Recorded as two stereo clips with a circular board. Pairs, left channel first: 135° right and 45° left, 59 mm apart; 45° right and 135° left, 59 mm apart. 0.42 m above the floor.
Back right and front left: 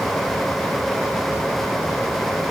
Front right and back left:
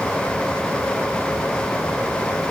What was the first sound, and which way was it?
Only background noise.